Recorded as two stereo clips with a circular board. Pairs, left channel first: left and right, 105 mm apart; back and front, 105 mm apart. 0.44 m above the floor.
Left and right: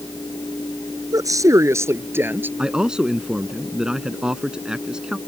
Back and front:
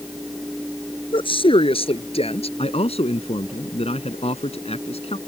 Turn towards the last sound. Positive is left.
turn(degrees=-175)